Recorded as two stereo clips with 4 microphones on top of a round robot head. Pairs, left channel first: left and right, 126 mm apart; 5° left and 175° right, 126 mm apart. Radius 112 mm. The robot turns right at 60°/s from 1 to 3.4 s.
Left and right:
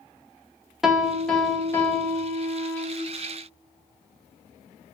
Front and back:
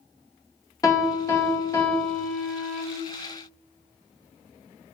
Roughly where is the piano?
Ahead.